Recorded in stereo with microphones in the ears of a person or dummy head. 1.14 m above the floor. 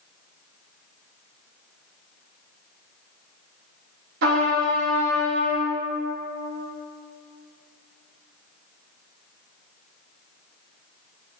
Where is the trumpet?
60° right (ahead or behind), 0.8 m.